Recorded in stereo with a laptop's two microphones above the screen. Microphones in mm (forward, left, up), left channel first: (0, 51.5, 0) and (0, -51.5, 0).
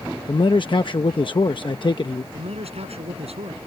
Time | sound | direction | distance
0.3 | a man speaking | 50° left (ahead or behind) | ?
2.3 | a man speaking | 80° right | ?